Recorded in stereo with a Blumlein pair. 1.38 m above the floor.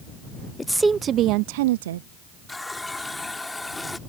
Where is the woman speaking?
10° left; by 2.1 s 65° right.